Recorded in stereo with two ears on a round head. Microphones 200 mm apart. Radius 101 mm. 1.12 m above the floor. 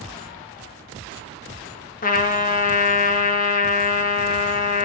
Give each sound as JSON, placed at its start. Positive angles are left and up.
{"t": 2.0, "sound": "a trumpet", "side_deg": 40, "distance_m": 1.9}